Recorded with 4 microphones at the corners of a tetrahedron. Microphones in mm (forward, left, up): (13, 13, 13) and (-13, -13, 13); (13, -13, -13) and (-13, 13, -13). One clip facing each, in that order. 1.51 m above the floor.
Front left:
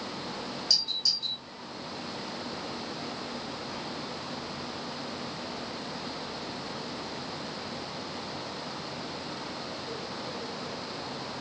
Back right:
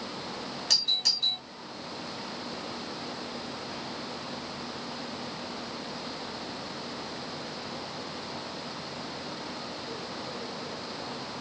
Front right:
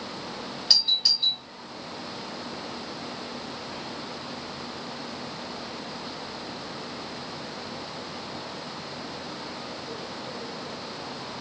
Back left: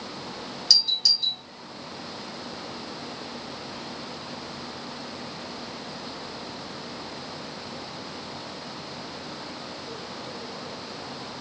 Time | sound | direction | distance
0.7 | a doorbell | 110° right | 4 m